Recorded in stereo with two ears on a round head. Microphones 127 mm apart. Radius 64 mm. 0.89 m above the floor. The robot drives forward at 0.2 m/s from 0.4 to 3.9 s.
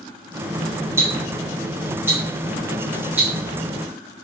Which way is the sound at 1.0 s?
20° right (ahead or behind).